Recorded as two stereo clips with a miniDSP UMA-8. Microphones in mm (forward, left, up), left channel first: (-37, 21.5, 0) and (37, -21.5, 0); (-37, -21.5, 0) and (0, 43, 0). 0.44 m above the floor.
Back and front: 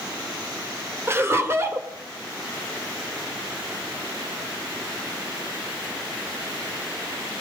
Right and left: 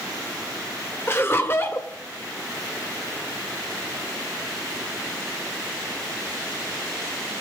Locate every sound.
1.1 s laughter: 75° right, 1.4 m